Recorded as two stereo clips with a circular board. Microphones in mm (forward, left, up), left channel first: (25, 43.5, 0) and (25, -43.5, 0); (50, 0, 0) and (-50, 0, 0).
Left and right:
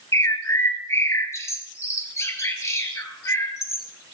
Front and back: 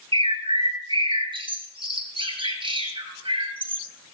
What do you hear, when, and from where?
0.1 s a bird: 145° left, 2.0 m